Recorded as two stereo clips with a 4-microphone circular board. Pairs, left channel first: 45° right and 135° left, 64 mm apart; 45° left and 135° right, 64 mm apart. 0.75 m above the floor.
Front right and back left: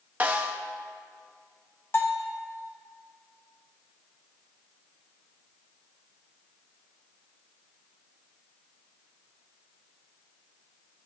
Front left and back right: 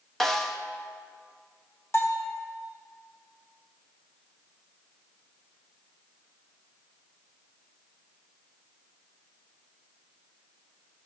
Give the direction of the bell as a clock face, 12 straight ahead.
12 o'clock.